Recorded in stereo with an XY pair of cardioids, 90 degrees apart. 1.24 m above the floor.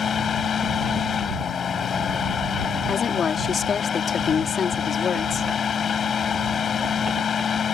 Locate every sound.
0.0 s a fan: 55° left
2.9 s a woman speaking: 55° left